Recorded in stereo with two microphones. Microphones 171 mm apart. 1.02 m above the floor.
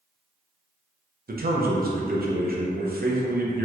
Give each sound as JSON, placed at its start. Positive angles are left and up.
{"t": 1.3, "sound": "a man speaking", "side_deg": -60, "distance_m": 0.6}